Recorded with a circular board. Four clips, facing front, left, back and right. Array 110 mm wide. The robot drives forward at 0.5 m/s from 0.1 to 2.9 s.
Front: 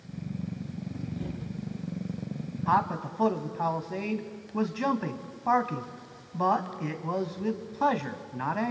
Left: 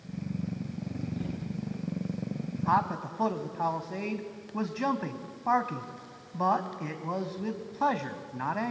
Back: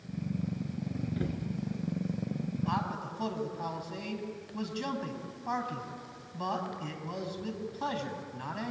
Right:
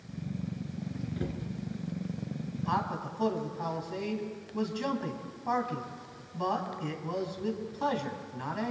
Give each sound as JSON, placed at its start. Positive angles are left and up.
{"t": 1.2, "sound": "a cupboard door", "azimuth_deg": -150, "distance_m": 3.5}
{"t": 2.7, "sound": "a man speaking", "azimuth_deg": 30, "distance_m": 1.9}